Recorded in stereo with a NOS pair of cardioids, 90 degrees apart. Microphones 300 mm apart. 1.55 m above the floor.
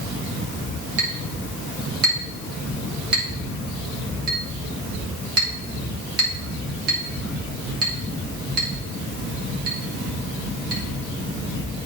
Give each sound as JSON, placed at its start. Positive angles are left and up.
{"t": 1.0, "sound": "a clink", "azimuth_deg": -55, "distance_m": 2.0}